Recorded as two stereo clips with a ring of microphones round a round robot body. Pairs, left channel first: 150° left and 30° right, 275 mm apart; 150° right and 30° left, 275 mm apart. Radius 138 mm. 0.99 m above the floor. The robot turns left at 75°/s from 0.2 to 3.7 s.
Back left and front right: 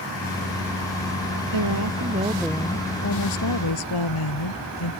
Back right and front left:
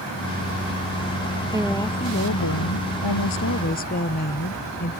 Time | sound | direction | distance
1.5 | a woman speaking | 45° right | ?